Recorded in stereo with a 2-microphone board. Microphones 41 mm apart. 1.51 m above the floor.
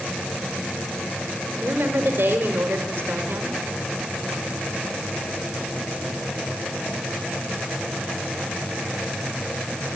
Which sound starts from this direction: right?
A woman speaking, at 1.6 s.